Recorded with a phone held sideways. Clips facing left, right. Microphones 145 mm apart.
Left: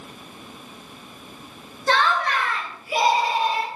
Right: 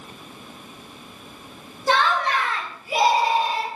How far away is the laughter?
About 0.9 m.